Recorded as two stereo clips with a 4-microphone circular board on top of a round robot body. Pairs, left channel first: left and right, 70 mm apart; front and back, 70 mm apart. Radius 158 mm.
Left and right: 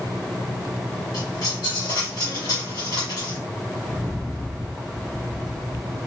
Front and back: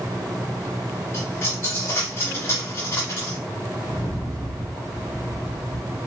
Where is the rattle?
10° left, 1.3 m.